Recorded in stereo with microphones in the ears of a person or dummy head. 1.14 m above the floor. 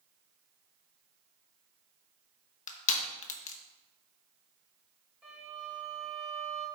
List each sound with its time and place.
2.7 s crushing: 40° left (ahead or behind), 1.2 m
5.2 s a violin: 5° right (ahead or behind), 4.5 m